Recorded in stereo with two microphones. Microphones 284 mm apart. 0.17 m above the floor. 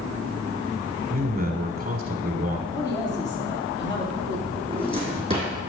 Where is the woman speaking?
15° left (ahead or behind), 4 m.